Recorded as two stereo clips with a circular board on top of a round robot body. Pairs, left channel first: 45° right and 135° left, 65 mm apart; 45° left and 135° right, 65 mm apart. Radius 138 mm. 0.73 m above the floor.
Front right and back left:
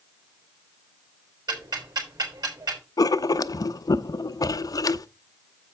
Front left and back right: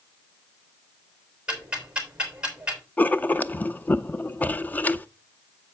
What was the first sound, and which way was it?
Ticking, 150° left.